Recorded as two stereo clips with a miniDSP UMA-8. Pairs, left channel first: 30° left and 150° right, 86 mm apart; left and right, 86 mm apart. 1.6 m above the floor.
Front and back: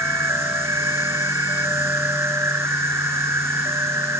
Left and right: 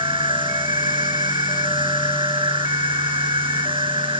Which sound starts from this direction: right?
An insect, at 0.0 s.